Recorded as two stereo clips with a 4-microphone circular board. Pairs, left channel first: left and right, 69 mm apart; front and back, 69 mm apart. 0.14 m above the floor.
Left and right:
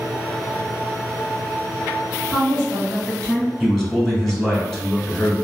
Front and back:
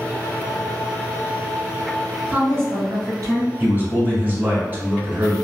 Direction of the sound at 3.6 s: 175° left.